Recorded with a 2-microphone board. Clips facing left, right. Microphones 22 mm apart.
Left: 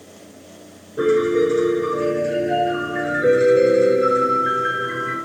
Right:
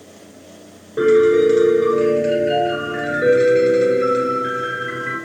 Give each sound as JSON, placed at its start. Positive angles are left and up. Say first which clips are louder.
{"t": 1.0, "sound": "a piano", "louder": "right 4 dB", "side_deg": -50, "distance_m": 2.0}